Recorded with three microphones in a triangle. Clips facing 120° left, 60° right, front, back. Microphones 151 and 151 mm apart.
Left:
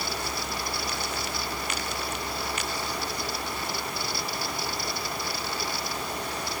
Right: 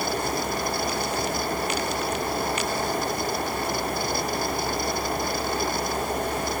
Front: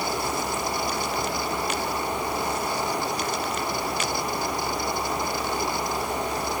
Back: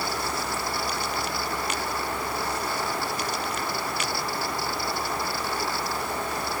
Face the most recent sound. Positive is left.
No sound to turn to.